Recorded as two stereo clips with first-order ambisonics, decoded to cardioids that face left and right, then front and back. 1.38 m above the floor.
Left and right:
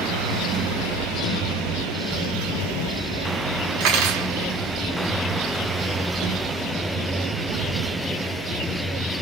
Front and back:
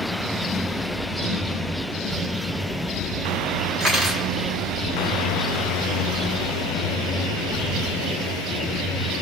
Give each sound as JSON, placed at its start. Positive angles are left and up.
{"t": 3.8, "sound": "cutlery clinking", "azimuth_deg": -95, "distance_m": 2.0}